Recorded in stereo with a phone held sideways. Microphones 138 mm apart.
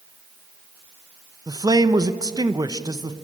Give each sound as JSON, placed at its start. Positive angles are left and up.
{"t": 1.5, "sound": "a man speaking", "side_deg": -30, "distance_m": 0.9}